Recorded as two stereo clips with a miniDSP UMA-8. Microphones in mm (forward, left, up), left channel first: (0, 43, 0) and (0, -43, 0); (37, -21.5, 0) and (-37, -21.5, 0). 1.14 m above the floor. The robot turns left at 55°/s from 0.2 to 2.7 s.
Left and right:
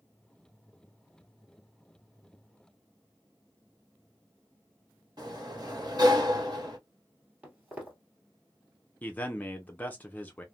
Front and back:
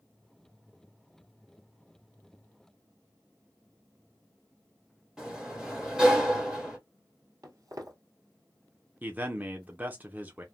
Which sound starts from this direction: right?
A sliding door, at 5.2 s.